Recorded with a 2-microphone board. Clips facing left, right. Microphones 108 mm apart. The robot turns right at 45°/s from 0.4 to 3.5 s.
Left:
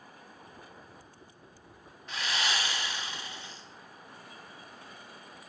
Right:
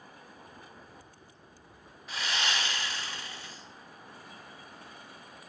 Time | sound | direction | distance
2.1 | sawing | 5° right (ahead or behind) | 0.7 m